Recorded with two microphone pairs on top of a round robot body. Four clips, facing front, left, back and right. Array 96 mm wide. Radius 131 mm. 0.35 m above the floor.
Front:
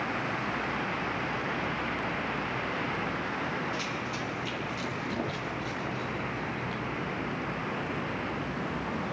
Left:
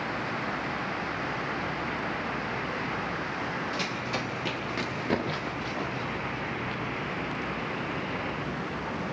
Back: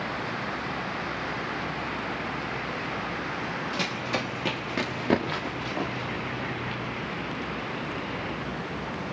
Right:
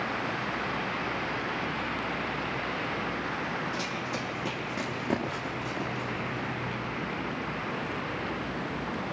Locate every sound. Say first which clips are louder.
3.7 s running footsteps: left 1 dB, back 4 dB; 175° right, 5.5 m; by 6.8 s 160° right, 6 m